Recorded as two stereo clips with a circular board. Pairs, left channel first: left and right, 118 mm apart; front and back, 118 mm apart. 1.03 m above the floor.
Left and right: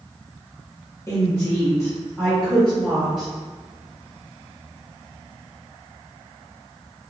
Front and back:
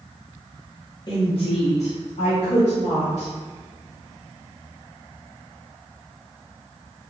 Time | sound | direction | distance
1.1 | a woman speaking | 35° left | 0.6 m